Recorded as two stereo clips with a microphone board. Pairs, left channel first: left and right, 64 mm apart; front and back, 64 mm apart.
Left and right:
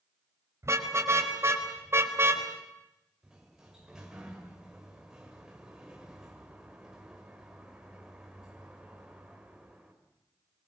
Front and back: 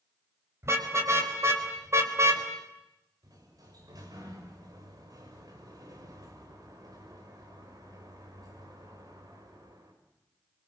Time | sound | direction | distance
0.6 | a car horn | 135° right | 4.5 m
3.2 | a sliding door | 170° right | 6 m